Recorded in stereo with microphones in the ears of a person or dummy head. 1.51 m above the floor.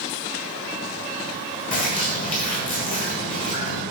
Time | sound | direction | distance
1.7 | a bird | 40° left (ahead or behind) | 1.4 m